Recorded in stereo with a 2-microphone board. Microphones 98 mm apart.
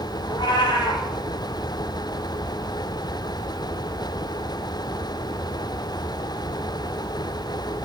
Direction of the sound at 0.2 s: 50° left (ahead or behind).